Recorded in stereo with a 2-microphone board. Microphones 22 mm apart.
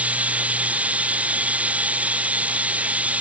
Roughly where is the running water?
Right.